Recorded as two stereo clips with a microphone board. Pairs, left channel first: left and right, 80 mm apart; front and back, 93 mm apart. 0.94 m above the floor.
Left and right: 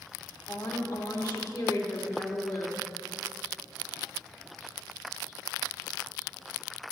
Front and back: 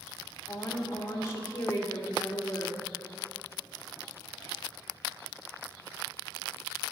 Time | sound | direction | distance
0.5 | a woman speaking | 60° left | 2.0 m